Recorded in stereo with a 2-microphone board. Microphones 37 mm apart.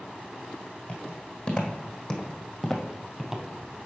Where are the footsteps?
40° left (ahead or behind), 2 m; by 3.5 s 15° right (ahead or behind), 1.1 m.